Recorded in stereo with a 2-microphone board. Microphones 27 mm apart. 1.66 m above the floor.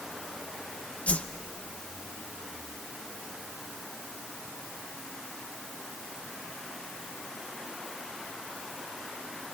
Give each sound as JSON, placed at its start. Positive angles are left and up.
{"t": 1.1, "sound": "a whoosh", "side_deg": 70, "distance_m": 0.8}